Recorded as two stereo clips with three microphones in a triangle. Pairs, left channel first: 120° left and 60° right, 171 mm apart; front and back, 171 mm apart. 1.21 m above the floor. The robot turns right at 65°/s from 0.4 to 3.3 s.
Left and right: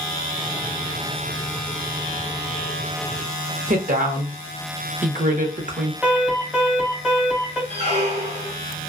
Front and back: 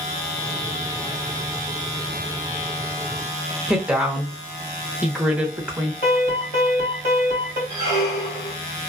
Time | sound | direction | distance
3.7 | a woman speaking | 95° right | 0.7 m
6.0 | an alarm | 25° left | 1.8 m
7.7 | a squeak | 10° right | 1.1 m